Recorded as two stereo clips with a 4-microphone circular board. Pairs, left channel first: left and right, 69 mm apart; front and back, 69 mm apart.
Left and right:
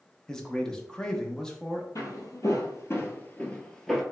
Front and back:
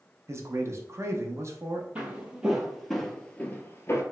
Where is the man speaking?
165° left, 0.6 m.